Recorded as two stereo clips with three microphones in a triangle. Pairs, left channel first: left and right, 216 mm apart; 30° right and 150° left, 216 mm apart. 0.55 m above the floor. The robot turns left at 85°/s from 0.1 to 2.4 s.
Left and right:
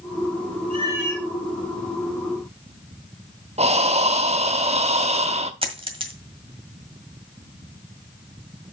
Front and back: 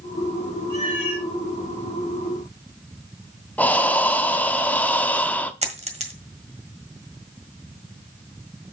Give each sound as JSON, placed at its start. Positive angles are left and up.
{"t": 0.7, "sound": "a cat meowing", "azimuth_deg": -145, "distance_m": 3.5}
{"t": 3.6, "sound": "breathing", "azimuth_deg": -105, "distance_m": 0.8}
{"t": 5.6, "sound": "a dropped coin", "azimuth_deg": -150, "distance_m": 1.5}